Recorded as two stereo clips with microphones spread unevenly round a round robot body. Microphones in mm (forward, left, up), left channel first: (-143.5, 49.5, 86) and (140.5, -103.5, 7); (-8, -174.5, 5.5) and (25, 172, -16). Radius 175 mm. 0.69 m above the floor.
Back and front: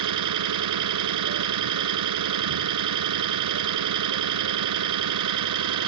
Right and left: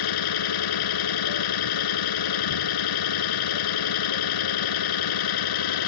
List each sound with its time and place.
0.0 s an engine running: 65° right